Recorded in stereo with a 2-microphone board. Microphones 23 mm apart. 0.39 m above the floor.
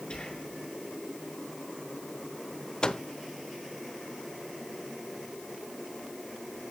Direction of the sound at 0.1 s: 40° left (ahead or behind).